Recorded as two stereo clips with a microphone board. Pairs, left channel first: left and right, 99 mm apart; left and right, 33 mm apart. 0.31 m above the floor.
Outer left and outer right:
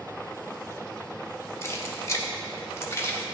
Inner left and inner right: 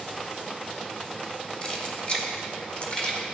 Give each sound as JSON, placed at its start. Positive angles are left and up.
{"t": 1.6, "sound": "keys jangling", "side_deg": 30, "distance_m": 0.9}